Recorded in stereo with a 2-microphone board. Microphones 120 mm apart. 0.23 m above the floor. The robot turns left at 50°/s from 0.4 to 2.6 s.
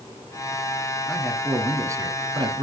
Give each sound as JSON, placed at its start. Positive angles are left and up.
{"t": 1.1, "sound": "a man speaking", "azimuth_deg": 10, "distance_m": 2.0}